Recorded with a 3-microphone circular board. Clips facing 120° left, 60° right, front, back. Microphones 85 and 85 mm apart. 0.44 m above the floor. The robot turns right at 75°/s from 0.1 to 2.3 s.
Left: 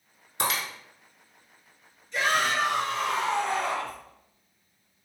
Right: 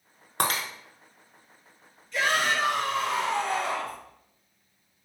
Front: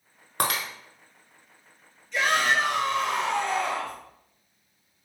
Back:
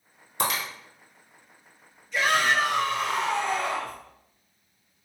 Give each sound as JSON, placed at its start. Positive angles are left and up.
{"t": 0.4, "sound": "breaking glass", "azimuth_deg": -30, "distance_m": 0.8}
{"t": 2.1, "sound": "a shout", "azimuth_deg": 105, "distance_m": 1.5}